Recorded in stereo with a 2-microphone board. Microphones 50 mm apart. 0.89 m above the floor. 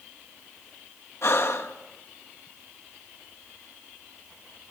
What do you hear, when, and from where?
1.2 s breathing: 55° left (ahead or behind), 1.1 m